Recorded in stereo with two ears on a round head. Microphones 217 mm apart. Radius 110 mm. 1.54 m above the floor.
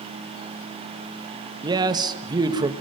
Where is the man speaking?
20° right (ahead or behind), 2 m.